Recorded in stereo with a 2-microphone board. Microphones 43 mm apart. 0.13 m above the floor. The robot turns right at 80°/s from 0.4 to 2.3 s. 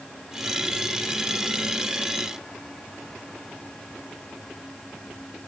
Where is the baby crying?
No baby crying in this recording.